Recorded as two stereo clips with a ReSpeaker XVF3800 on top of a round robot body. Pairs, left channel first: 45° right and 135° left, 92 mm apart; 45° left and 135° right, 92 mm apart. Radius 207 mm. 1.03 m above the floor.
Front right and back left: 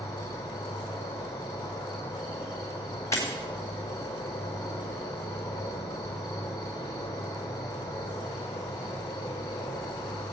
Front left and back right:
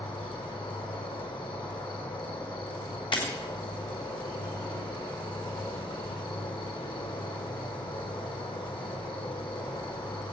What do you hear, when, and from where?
0.0 s an insect: 10° left, 3.5 m
3.1 s breaking glass: 15° left, 3.5 m